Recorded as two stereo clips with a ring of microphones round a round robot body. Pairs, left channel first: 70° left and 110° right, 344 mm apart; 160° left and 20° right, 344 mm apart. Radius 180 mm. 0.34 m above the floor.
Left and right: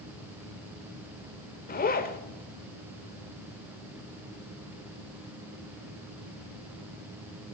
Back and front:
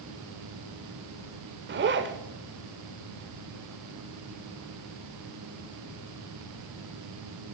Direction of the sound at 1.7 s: 15° left.